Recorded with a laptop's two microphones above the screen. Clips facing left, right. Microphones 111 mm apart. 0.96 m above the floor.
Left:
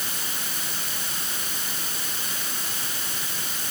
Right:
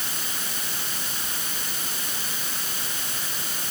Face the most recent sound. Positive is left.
No sound to turn to.